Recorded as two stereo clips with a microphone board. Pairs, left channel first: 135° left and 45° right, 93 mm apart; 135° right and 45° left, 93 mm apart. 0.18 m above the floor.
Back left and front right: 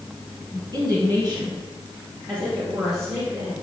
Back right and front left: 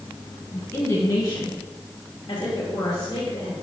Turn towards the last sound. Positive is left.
turn(degrees=-100)